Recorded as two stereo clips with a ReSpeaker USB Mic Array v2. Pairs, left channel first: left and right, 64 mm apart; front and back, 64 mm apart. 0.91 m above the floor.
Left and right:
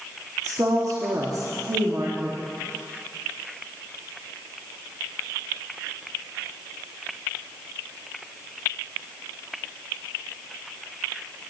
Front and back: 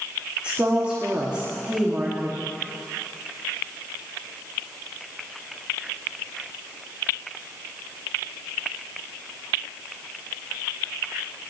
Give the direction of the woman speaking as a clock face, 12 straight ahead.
4 o'clock.